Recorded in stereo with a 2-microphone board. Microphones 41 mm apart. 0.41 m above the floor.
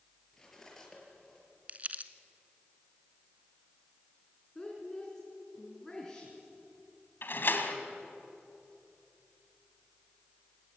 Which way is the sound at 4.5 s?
10° left (ahead or behind).